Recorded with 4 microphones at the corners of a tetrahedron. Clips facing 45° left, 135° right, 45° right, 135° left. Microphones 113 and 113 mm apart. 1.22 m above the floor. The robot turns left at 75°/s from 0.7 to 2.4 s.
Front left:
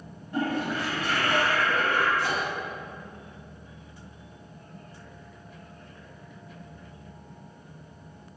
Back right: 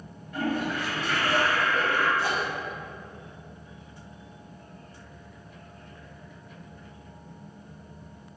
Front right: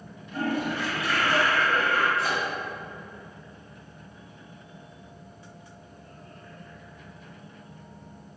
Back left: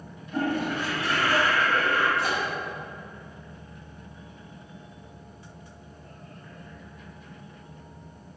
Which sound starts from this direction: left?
A toilet flushing, at 0.3 s.